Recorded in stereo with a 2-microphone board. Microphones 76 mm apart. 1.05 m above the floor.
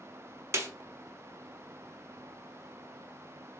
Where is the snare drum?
40° right (ahead or behind), 0.8 m.